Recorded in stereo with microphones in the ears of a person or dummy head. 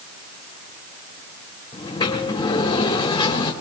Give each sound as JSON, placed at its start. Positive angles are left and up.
{"t": 1.7, "sound": "a sliding door", "side_deg": 20, "distance_m": 1.6}